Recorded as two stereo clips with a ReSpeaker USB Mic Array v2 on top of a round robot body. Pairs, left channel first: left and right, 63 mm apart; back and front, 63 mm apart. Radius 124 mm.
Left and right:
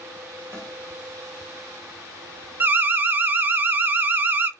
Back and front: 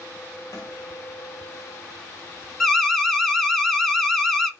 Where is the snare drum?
160° left, 2.0 m.